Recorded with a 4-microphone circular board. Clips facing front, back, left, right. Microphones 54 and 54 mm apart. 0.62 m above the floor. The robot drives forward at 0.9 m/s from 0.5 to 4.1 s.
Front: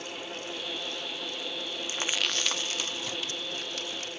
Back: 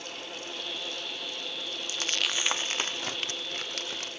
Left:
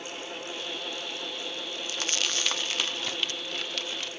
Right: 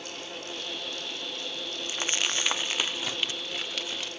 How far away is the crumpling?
About 0.6 m.